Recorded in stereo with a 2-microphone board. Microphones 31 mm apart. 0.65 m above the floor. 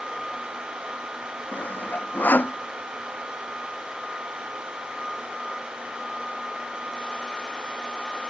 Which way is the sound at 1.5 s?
70° left (ahead or behind).